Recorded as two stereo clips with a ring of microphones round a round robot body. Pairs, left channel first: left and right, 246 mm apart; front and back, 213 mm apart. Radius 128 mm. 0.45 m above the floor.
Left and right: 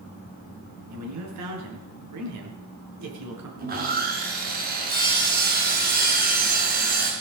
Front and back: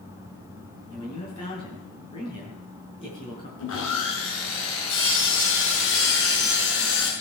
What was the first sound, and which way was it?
A man speaking, 70° right.